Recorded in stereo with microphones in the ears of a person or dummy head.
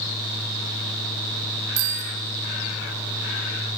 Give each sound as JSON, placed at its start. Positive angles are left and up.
{"t": 1.8, "sound": "a bicycle bell", "side_deg": -80, "distance_m": 2.0}